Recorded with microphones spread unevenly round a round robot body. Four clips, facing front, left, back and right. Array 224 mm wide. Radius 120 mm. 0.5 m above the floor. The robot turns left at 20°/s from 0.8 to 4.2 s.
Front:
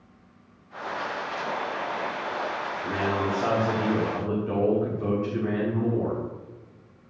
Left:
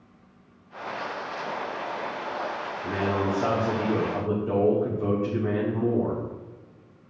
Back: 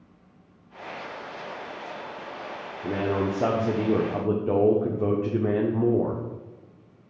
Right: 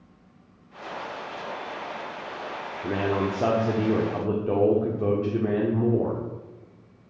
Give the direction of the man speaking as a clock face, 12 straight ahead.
4 o'clock.